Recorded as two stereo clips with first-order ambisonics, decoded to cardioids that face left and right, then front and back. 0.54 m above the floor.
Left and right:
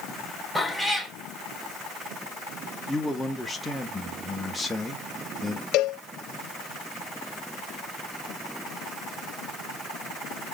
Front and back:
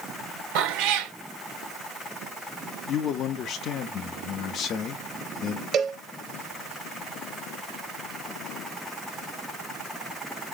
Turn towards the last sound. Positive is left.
turn(degrees=125)